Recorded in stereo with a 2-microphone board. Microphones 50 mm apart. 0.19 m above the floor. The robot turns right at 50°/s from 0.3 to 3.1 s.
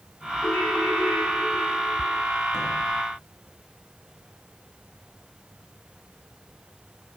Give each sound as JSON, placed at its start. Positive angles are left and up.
{"t": 0.4, "sound": "a ringtone", "azimuth_deg": 135, "distance_m": 6.5}